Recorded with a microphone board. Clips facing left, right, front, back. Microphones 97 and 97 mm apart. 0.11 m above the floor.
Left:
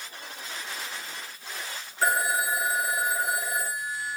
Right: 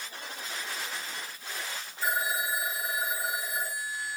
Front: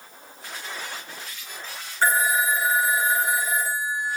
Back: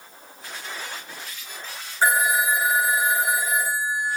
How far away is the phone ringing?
About 5 m.